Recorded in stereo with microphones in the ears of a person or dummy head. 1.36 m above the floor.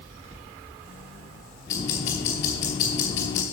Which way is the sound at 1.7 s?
20° left (ahead or behind).